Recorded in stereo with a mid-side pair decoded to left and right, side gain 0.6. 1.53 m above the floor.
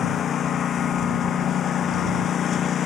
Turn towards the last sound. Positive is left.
turn(degrees=45)